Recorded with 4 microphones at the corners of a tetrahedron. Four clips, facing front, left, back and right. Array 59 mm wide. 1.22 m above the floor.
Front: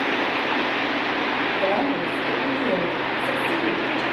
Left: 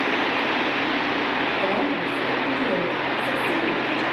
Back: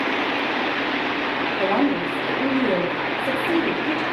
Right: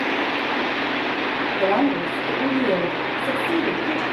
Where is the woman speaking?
140° right, 2.5 m.